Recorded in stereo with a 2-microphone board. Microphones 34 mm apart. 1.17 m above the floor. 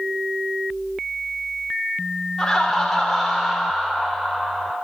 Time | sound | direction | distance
2.4 | laughter | 15° left (ahead or behind) | 3 m